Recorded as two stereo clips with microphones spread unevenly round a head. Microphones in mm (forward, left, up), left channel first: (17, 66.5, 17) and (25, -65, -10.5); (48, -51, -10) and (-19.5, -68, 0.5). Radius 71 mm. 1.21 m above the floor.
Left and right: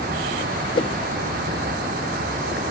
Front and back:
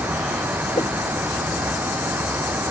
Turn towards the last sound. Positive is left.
turn(degrees=55)